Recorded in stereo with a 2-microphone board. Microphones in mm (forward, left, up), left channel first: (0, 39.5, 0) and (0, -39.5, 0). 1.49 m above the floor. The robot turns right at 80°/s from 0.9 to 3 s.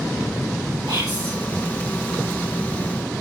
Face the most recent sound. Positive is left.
turn(degrees=100)